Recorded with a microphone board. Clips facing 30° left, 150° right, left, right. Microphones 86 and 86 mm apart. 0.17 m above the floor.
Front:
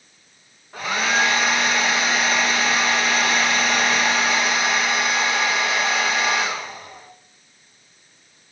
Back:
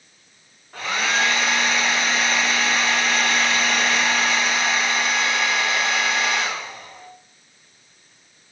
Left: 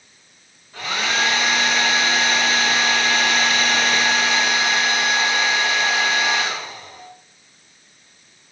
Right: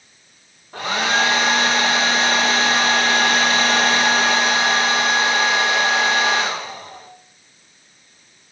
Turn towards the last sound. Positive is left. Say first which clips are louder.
# front 2 dB, right 3 dB
turn(degrees=-55)